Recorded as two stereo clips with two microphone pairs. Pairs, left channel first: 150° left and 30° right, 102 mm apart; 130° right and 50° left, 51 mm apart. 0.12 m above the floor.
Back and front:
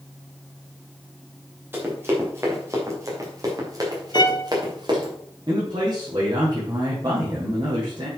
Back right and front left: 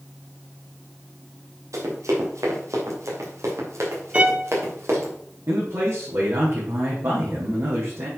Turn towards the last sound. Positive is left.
turn(degrees=20)